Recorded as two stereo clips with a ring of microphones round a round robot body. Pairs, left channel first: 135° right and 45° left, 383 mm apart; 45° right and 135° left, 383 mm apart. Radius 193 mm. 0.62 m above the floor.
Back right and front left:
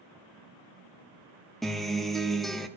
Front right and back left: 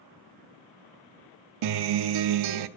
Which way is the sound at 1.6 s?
135° left.